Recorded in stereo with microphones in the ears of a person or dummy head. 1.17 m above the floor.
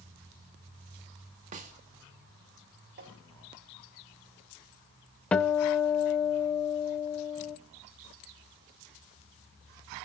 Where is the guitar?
10° left (ahead or behind), 0.6 m.